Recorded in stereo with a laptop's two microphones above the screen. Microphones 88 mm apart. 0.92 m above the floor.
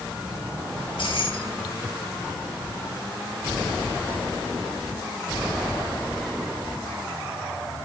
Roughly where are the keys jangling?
Left.